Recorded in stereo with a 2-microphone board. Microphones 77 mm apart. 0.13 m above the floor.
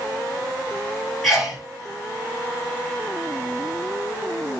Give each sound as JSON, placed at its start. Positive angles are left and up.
{"t": 1.2, "sound": "a sneeze", "side_deg": 0, "distance_m": 1.6}